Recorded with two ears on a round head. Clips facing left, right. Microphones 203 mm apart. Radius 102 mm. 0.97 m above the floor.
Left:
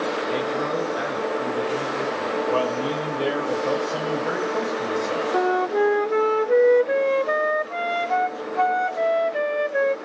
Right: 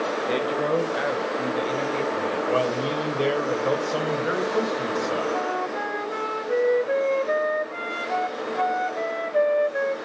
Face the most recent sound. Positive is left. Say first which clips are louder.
# left 7 dB
turn(degrees=60)  # may be behind; listen again after turning